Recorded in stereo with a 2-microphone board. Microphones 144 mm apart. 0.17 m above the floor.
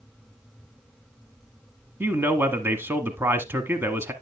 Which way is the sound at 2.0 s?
15° right (ahead or behind).